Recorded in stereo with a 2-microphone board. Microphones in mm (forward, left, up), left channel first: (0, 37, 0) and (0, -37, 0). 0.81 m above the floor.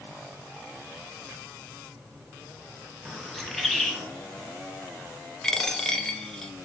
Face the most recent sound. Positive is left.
turn(degrees=10)  # may be behind; listen again after turning